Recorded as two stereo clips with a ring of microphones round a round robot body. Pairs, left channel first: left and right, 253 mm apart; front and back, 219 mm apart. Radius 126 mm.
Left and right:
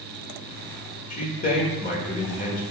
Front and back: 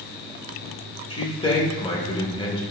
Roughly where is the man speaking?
Ahead left.